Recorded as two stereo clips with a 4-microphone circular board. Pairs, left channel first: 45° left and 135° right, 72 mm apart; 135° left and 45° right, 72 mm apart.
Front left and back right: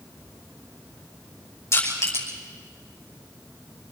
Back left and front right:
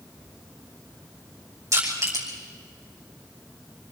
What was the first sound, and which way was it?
Crushing, 5° right.